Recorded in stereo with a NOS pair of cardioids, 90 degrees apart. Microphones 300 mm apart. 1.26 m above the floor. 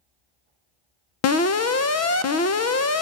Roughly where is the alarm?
Ahead left.